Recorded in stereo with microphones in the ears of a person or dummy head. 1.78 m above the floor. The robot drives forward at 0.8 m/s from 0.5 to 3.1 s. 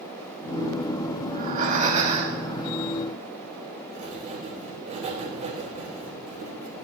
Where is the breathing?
40° right (ahead or behind), 1.9 m; by 2.5 s 30° right (ahead or behind), 2.5 m.